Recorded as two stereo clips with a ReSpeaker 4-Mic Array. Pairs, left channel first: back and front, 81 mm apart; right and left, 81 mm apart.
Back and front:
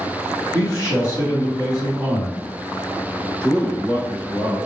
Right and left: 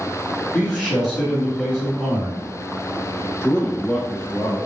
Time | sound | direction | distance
0.5 | a man speaking | 160° right | 2.0 m
3.4 | a man speaking | 115° right | 1.1 m